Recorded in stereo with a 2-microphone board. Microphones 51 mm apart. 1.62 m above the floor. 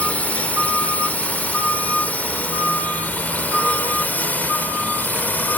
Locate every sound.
0.0 s a drone: 25° left (ahead or behind); by 5.6 s 30° left (ahead or behind)